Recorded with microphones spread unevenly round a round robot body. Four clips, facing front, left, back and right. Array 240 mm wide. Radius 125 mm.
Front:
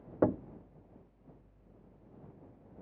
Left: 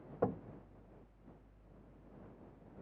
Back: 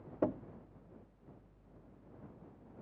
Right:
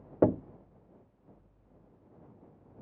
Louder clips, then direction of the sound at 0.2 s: Right 11 dB, front 6 dB; 80° right.